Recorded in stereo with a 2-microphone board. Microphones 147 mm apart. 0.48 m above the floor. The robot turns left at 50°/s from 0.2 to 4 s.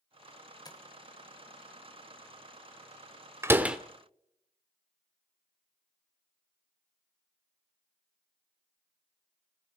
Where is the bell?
I don't hear a bell.